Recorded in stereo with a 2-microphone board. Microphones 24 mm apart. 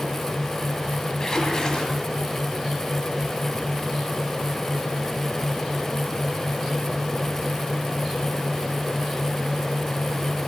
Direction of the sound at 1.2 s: 25° left (ahead or behind).